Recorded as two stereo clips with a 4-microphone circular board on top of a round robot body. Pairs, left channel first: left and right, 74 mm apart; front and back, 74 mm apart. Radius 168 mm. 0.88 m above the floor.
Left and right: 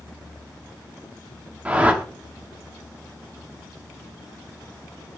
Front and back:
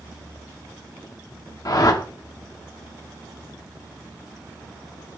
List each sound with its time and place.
1.6 s a whoosh: 25° right, 1.4 m